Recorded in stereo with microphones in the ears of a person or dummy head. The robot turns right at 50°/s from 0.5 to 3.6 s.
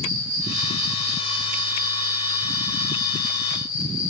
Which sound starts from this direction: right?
An insect, at 0.0 s.